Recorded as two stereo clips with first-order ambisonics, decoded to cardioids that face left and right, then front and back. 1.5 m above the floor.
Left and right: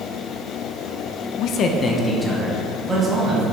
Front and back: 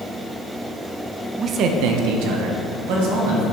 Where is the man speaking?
120° left, 0.7 m; by 3.4 s 165° right, 2.5 m.